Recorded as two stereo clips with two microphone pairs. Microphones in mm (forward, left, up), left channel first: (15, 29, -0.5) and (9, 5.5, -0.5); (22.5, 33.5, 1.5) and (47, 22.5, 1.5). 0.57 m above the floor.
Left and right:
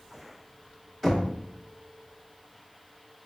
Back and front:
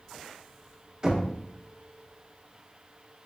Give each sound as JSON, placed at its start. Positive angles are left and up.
{"t": 1.0, "sound": "knocking", "azimuth_deg": -10, "distance_m": 0.8}